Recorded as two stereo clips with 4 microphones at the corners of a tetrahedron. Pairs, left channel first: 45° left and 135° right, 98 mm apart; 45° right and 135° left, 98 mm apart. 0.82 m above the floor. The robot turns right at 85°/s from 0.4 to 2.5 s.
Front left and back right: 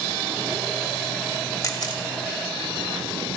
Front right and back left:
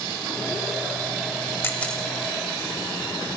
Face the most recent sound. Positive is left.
turn(degrees=85)